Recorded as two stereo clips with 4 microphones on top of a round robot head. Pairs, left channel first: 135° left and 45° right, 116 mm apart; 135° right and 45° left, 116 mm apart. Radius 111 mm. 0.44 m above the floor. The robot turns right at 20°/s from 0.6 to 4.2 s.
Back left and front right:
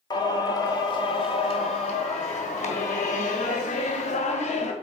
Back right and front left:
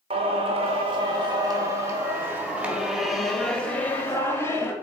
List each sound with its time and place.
0.1 s singing: 85° left, 1.4 m; by 4.7 s 155° left, 1.4 m